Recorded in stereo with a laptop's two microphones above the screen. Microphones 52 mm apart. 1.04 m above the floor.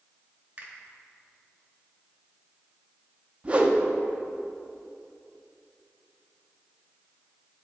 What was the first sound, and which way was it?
A finger snap, 30° right (ahead or behind).